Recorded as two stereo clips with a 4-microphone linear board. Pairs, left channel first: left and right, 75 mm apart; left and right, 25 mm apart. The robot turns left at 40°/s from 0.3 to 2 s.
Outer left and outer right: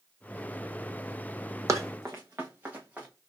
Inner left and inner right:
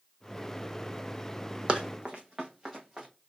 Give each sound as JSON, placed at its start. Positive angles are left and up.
{"t": 1.7, "sound": "running footsteps", "side_deg": -45, "distance_m": 0.7}